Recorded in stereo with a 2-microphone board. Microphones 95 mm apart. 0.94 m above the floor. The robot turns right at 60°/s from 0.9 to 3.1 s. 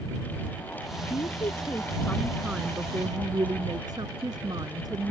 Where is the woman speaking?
105° left; by 5.1 s 135° right.